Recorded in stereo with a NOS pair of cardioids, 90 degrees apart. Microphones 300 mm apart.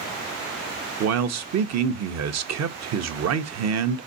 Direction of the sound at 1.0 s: 60° right.